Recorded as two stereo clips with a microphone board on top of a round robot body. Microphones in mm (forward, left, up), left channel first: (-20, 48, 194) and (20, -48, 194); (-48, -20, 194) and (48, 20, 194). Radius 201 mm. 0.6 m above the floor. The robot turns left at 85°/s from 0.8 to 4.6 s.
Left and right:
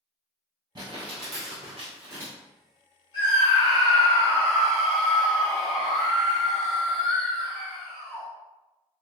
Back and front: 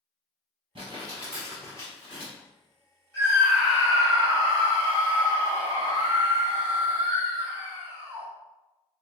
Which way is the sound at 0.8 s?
15° right.